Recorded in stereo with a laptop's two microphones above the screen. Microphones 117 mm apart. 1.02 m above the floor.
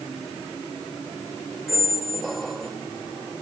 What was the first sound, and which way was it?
A squeak, centre (ahead or behind).